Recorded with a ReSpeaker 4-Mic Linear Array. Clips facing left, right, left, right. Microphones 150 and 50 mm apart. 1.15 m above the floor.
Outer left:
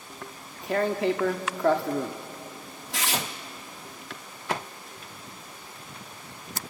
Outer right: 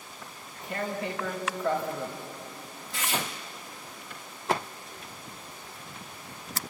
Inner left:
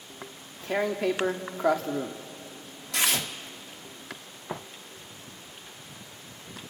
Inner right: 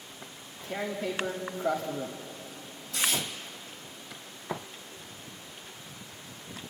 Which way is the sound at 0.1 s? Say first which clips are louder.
Outer left 6 dB, inner left 6 dB; 75° left (ahead or behind).